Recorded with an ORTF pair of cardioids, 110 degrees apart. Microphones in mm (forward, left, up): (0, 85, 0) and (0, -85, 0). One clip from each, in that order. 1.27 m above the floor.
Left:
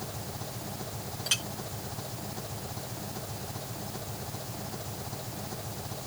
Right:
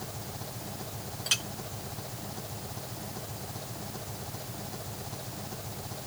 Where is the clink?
10° right.